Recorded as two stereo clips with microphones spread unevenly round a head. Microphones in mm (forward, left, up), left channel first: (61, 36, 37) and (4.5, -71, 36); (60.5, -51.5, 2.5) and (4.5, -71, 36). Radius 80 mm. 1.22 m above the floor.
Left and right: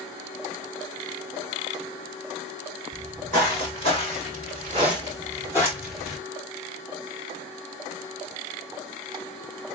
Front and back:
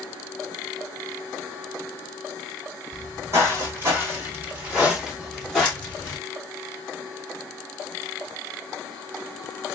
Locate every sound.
2.9 s footsteps: 160° right, 3 m; by 6.2 s 30° left, 1.1 m